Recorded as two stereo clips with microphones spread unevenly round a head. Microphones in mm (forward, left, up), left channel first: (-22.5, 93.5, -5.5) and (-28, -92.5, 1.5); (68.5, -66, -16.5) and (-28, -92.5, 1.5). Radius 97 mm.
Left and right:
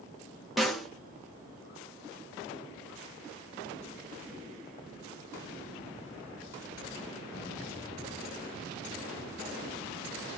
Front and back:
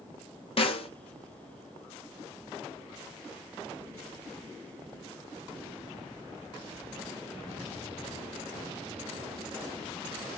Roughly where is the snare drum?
Ahead.